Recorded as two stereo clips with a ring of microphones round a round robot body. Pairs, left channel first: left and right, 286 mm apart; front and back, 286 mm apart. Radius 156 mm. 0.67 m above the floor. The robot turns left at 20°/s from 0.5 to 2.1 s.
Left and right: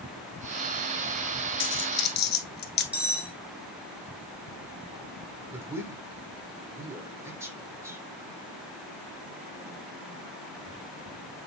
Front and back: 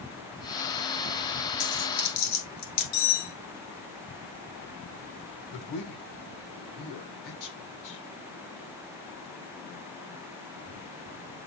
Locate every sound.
1.6 s a dropped coin: 45° left, 1.3 m; by 2.8 s 35° left, 1.3 m
2.9 s cutlery clinking: 5° right, 2.5 m
5.5 s a man speaking: 10° right, 1.9 m